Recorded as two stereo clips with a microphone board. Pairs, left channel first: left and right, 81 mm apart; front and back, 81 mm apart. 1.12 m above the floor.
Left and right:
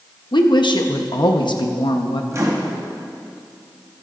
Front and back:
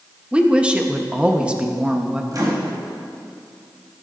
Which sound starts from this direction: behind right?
A microwave, at 2.3 s.